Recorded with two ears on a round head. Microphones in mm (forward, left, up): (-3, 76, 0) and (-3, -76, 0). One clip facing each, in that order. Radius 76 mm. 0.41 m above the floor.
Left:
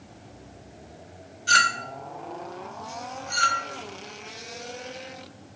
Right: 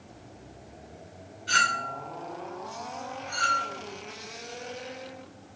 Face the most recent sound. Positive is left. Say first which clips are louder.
# left 3 dB
turn(degrees=55)  # may be behind; listen again after turning